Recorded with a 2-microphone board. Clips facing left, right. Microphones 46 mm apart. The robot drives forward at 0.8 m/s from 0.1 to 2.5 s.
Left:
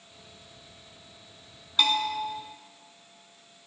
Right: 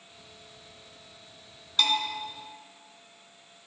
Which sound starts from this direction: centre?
A bell, at 1.8 s.